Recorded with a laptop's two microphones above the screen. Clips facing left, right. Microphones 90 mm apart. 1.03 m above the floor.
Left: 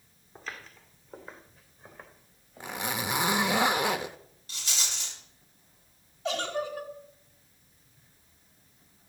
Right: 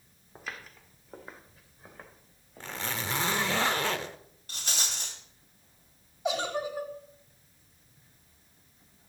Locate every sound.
0.3 s footsteps: 10° right (ahead or behind), 2.5 m; by 3.6 s centre (ahead or behind), 4 m
2.6 s a zipper: 15° left (ahead or behind), 0.7 m
4.5 s a rattle: 50° right (ahead or behind), 2.5 m
6.2 s a giggle: 15° right (ahead or behind), 1.5 m